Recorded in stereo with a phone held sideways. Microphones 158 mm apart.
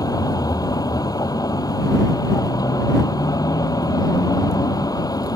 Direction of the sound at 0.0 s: 25° left (ahead or behind).